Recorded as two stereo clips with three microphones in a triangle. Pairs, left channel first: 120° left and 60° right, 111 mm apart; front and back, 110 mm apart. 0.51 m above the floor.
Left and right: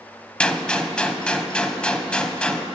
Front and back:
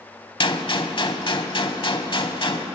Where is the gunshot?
40° left, 0.8 m.